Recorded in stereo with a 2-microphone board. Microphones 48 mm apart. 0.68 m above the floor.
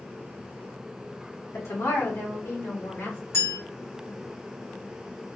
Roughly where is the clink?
Left.